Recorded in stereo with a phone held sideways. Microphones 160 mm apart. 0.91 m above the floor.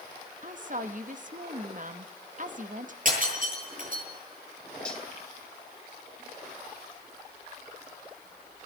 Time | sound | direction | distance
0.4 | a woman speaking | 55° right (ahead or behind) | 1.5 m
3.0 | breaking glass | 55° right (ahead or behind) | 10 m
4.8 | cutlery clinking | 5° left (ahead or behind) | 2.5 m